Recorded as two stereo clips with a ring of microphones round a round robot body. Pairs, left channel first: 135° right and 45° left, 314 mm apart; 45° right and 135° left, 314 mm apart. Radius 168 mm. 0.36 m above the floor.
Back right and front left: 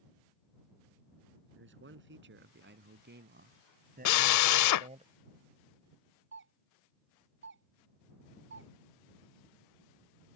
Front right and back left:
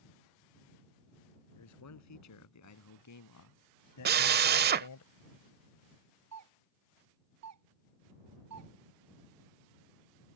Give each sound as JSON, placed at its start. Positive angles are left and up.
{"t": 1.5, "sound": "a man speaking", "azimuth_deg": -10}
{"t": 4.0, "sound": "a drill", "azimuth_deg": -165}
{"t": 6.3, "sound": "a doorbell", "azimuth_deg": 100}